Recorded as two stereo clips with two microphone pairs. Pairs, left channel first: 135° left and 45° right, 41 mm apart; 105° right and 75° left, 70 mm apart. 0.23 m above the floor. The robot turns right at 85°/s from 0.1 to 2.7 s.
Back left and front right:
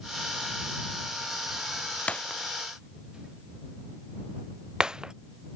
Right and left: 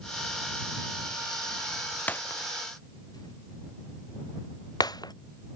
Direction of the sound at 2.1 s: 170° right.